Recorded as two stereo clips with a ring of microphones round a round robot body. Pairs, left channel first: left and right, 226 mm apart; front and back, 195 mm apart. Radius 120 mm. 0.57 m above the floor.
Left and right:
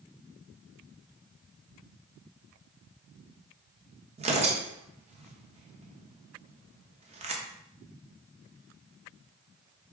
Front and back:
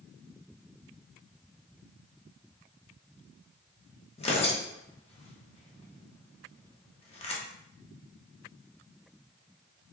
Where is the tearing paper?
45° right, 0.9 m.